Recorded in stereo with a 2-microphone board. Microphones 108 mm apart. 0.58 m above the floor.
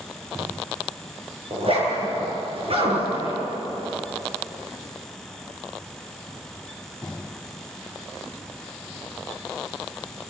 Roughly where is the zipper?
Right.